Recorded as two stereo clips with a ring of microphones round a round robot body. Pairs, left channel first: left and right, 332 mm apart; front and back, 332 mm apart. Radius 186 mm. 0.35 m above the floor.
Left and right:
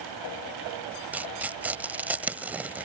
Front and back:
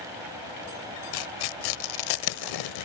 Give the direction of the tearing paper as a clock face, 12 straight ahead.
12 o'clock.